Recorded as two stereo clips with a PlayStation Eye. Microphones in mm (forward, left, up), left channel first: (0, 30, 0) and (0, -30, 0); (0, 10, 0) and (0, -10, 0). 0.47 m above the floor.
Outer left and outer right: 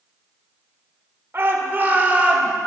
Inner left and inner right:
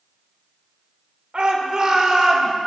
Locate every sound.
1.3 s a shout: 45° right (ahead or behind), 1.4 m; by 2.5 s 20° right (ahead or behind), 1.5 m